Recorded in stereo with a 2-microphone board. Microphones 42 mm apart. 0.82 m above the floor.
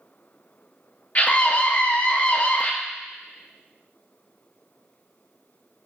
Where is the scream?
35° left (ahead or behind), 0.5 m.